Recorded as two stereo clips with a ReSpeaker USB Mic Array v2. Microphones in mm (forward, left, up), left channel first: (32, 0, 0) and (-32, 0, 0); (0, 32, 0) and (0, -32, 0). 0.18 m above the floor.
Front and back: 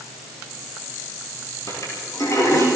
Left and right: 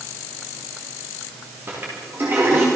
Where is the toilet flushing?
40° right, 9 m.